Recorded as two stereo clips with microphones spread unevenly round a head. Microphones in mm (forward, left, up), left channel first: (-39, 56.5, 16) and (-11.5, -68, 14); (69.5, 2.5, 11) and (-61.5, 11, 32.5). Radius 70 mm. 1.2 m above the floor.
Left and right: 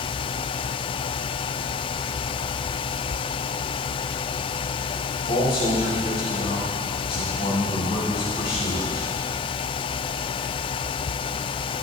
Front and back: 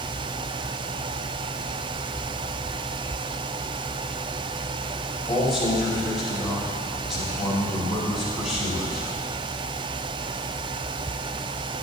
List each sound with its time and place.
5.2 s a man speaking: 90° left, 5 m